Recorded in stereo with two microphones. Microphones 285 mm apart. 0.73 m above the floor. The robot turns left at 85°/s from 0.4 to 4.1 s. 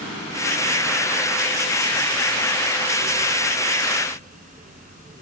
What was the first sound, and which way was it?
Only background noise.